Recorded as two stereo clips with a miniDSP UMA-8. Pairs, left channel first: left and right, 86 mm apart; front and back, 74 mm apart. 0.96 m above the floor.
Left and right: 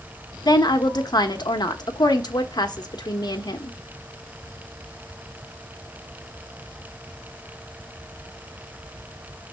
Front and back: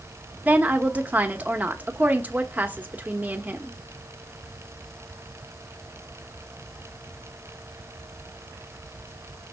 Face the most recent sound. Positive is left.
turn(degrees=115)